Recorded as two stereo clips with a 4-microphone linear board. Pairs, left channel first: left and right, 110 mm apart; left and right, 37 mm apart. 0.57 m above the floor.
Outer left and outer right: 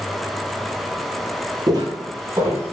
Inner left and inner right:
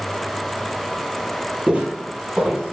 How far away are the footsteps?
About 0.7 m.